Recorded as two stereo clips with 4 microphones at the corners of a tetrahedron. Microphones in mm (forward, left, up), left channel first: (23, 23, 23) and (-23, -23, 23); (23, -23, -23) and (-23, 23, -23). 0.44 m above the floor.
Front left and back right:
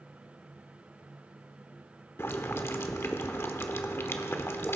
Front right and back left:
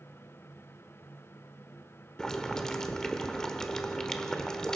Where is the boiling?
30° left, 1.0 m.